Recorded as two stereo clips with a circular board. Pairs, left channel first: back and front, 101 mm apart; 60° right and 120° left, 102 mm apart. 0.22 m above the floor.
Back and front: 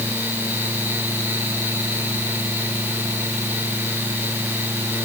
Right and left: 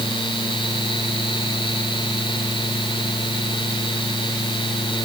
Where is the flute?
No flute in this recording.